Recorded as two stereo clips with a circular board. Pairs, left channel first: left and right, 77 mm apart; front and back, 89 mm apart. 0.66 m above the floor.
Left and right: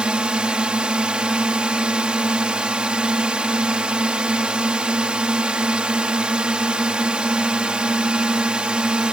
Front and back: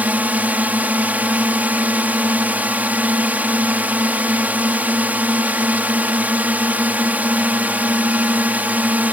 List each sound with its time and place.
0.0 s a drone: 145° right